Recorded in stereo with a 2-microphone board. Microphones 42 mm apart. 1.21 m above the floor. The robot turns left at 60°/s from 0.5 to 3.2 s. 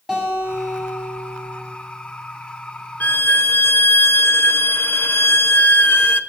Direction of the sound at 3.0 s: 50° left (ahead or behind).